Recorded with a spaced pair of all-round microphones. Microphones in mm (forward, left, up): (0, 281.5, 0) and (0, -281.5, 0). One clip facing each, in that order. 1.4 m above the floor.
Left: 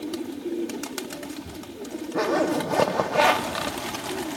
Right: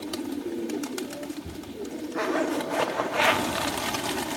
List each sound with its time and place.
2.1 s a zipper: 65° left (ahead or behind), 0.9 m